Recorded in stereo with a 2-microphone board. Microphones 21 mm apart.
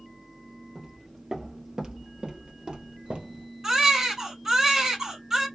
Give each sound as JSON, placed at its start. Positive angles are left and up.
{"t": 0.8, "sound": "footsteps", "side_deg": 0, "distance_m": 1.7}
{"t": 3.6, "sound": "a baby crying", "side_deg": -20, "distance_m": 2.5}